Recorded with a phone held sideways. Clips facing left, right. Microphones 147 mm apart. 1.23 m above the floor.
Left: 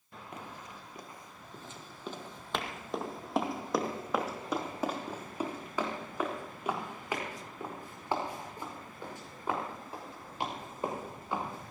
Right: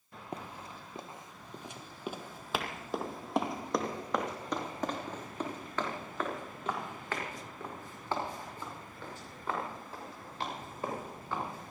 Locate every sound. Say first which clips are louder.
0.3 s running footsteps: right 3 dB; 35° right (ahead or behind), 1.5 m; by 11.7 s 20° left (ahead or behind), 7.5 m